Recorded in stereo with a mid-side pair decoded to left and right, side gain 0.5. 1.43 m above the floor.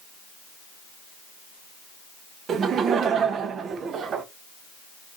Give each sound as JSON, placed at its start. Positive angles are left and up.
{"t": 2.5, "sound": "laughter", "azimuth_deg": -55, "distance_m": 0.8}